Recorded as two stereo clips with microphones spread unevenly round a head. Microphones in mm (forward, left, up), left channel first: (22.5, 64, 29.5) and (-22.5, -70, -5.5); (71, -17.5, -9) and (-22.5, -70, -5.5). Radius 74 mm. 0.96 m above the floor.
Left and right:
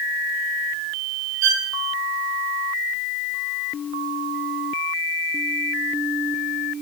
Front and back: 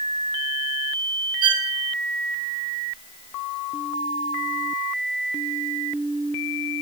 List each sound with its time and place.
1.4 s a violin: 110° right, 3 m